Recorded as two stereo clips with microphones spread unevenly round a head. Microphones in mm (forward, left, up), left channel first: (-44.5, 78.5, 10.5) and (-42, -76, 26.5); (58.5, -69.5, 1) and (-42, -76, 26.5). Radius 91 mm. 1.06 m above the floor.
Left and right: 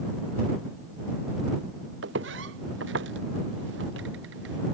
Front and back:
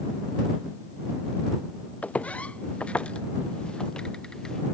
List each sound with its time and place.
2.0 s footsteps: 75° right; by 4.6 s 80° right